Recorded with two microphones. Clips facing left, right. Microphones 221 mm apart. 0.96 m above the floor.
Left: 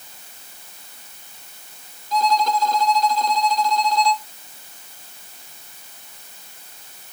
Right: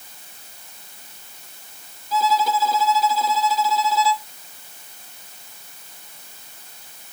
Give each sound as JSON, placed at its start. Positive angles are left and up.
{"t": 2.1, "sound": "a violin", "side_deg": -5}